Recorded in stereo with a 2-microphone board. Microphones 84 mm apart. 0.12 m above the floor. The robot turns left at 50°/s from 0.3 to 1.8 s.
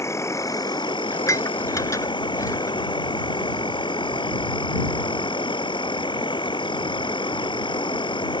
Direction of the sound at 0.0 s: 145° left.